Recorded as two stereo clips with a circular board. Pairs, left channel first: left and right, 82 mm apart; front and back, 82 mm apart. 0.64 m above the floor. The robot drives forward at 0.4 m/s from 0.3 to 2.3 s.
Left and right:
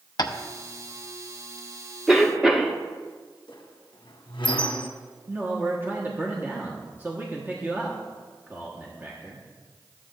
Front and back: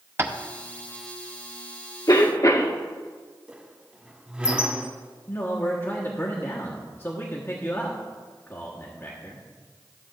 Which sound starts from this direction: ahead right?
A man speaking, at 5.3 s.